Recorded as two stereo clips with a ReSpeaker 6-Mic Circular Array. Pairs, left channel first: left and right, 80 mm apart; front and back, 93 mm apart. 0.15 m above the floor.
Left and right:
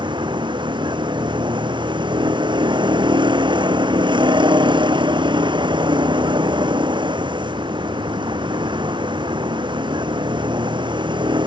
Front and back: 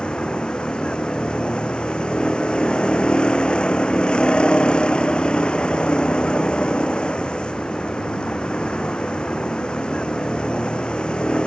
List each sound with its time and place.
0.0 s a vehicle: 80° right